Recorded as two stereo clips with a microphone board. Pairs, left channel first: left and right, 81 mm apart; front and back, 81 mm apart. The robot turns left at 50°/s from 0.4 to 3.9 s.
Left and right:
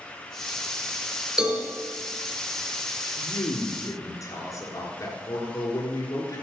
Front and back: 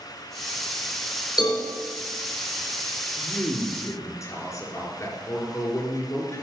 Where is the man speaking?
85° left, 3 m; by 6.4 s 45° left, 3 m.